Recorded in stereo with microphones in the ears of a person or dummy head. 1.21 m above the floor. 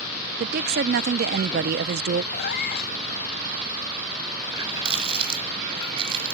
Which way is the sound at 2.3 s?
60° left (ahead or behind).